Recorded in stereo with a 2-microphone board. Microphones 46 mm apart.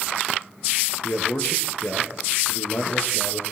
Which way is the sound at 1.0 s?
55° left (ahead or behind).